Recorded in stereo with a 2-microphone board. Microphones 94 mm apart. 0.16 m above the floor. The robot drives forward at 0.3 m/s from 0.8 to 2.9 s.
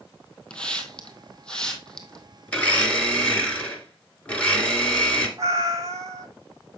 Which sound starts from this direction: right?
A cat meowing, at 5.4 s.